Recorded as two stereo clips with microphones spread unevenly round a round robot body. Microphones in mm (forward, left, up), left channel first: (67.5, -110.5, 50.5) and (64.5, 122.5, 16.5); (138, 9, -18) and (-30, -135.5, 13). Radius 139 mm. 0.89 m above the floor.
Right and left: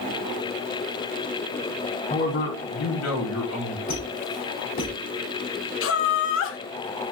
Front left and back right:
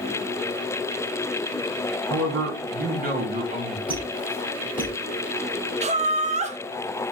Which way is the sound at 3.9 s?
55° right.